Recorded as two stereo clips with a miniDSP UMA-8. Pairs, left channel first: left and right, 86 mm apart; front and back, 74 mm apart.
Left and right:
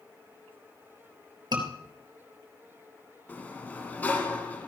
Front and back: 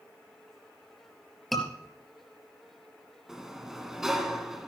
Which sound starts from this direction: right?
A scream, at 1.5 s.